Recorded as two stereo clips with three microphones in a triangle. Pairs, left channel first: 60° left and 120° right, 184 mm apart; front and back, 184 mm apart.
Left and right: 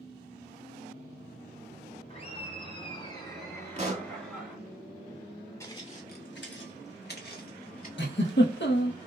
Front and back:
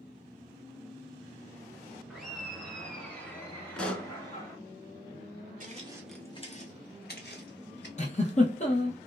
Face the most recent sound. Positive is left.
turn(degrees=55)